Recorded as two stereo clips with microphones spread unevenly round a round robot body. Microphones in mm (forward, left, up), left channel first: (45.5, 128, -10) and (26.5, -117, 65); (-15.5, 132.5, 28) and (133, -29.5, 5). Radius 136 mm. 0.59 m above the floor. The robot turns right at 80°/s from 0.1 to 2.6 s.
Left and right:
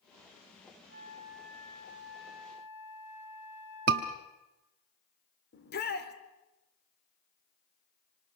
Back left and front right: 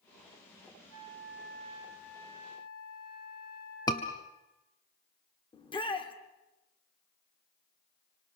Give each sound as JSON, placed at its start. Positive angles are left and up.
{"t": 0.9, "sound": "a flute", "azimuth_deg": -50, "distance_m": 4.5}
{"t": 3.9, "sound": "a scream", "azimuth_deg": -150, "distance_m": 0.9}
{"t": 5.5, "sound": "a shout", "azimuth_deg": 65, "distance_m": 2.5}